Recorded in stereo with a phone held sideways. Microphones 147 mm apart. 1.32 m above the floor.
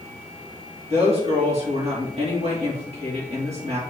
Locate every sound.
0.9 s a woman speaking: 45° right (ahead or behind), 2 m